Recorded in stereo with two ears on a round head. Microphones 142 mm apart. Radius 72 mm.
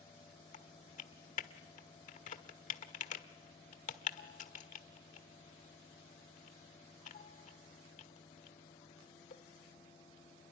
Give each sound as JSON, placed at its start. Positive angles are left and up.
{"t": 0.5, "sound": "typing on a keyboard", "side_deg": 50, "distance_m": 1.5}